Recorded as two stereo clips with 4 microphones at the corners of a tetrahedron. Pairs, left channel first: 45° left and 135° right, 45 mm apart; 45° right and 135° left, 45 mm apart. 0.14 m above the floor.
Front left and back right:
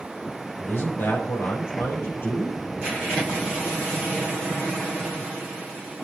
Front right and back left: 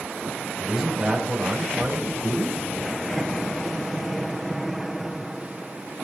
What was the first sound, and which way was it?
A man speaking, 50° left.